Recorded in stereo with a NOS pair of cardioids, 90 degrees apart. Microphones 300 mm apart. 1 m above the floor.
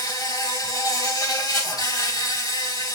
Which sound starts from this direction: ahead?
An insect, at 0.0 s.